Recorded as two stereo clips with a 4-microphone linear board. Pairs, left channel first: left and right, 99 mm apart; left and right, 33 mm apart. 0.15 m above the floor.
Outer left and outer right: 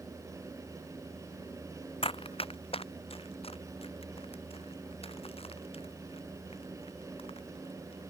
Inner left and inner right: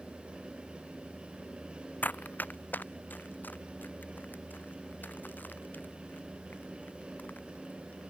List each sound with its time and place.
2.0 s running footsteps: 70° left (ahead or behind); by 8.0 s 75° left (ahead or behind)